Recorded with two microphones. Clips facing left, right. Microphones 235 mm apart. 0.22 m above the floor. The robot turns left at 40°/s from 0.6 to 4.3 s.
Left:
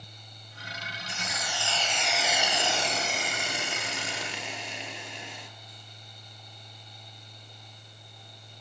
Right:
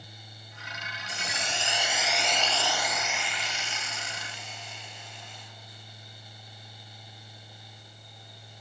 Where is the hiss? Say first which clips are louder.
Right 1 dB; 140° right, 1.6 m; by 5.5 s 95° left, 1.6 m.